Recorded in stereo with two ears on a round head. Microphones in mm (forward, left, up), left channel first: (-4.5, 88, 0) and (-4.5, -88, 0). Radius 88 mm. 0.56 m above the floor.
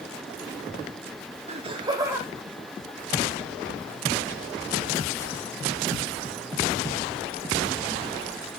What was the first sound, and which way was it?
Laughter, 35° right (ahead or behind).